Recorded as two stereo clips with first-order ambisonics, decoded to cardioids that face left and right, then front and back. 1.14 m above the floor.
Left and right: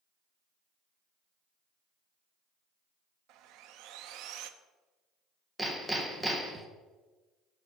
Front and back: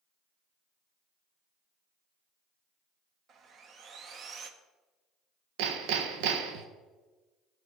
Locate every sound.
3.3 s sawing: 120° right, 0.6 m
5.6 s hammering: 175° right, 0.9 m